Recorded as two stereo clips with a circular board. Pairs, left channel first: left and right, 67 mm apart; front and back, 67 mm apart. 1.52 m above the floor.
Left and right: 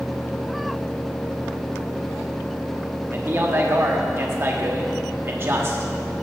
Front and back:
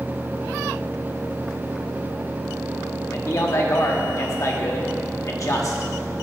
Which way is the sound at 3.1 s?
40° right.